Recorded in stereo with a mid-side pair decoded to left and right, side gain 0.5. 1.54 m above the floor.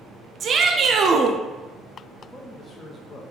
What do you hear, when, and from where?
0.4 s a shout: 45° right, 0.5 m
2.2 s a man speaking: 40° left, 0.8 m